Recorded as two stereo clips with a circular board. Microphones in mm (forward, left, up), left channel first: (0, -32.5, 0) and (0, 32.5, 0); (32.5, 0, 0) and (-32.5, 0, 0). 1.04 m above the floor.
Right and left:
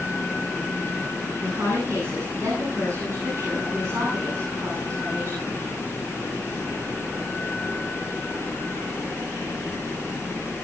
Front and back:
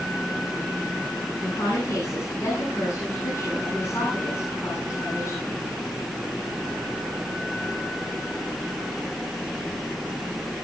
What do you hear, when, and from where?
1.4 s a woman speaking: 40° left, 9.5 m